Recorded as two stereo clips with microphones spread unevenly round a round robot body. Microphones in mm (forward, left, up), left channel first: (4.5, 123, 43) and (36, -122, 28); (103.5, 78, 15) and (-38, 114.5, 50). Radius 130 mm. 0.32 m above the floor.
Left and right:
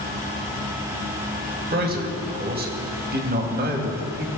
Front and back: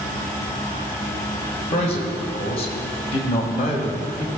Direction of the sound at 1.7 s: 40° right.